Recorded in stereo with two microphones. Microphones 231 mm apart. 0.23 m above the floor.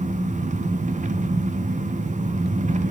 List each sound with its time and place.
0.0 s an engine running: 30° right (ahead or behind), 0.9 m